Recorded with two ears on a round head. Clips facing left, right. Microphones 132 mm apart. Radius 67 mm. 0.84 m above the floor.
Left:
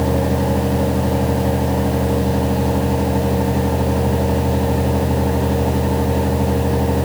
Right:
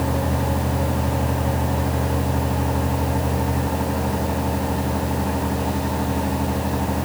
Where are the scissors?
I don't hear scissors.